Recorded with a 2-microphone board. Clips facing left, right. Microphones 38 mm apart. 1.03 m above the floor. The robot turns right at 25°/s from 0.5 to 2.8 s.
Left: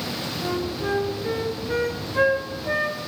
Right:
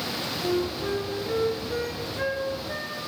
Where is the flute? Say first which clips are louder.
Even; 20° left, 4 m; by 3.0 s 75° left, 4 m.